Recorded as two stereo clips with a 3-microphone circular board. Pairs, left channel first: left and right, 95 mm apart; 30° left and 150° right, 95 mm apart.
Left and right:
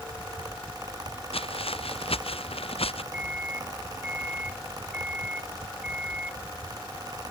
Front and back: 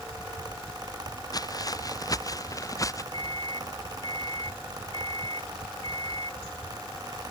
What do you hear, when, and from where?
1.3 s footsteps: 80° left; by 3.0 s 85° left
3.1 s a microwave: 15° right